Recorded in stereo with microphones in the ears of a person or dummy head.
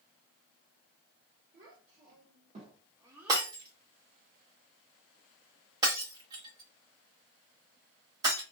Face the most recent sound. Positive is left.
turn(degrees=-20)  # may be behind; listen again after turning